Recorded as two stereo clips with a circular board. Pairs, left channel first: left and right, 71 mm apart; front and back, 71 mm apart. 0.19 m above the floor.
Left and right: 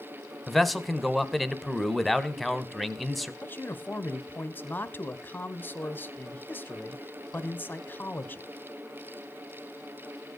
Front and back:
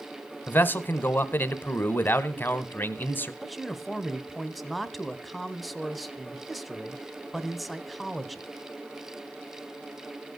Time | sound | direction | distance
0.5 | a man speaking | straight ahead | 1.1 m
3.4 | a man speaking | 90° left | 1.0 m